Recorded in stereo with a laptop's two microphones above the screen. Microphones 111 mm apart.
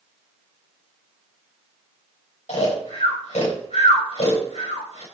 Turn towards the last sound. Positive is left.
turn(degrees=80)